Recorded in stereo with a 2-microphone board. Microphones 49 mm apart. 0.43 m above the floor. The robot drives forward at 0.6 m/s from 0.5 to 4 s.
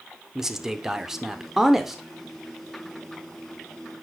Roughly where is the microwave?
I don't hear a microwave.